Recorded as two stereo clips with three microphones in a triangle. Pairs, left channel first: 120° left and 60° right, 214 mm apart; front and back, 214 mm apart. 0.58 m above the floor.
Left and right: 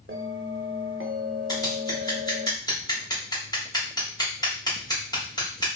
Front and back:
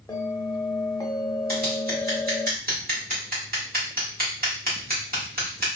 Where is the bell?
70° right, 0.5 m.